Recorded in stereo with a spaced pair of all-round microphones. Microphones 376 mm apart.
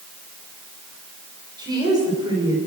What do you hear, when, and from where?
1.6 s a woman speaking: 10° right (ahead or behind), 6 m